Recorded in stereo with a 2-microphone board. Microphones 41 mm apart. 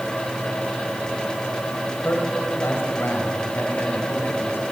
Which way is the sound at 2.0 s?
65° left (ahead or behind).